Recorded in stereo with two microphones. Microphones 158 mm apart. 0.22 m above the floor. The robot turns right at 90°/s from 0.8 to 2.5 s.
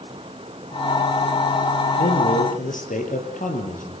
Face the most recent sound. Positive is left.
turn(degrees=125)